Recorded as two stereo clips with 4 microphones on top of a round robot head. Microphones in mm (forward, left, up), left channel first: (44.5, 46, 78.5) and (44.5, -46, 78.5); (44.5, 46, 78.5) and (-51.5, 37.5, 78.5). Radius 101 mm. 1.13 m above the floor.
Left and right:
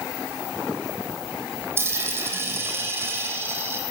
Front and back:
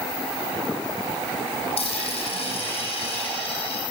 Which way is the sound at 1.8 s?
25° right.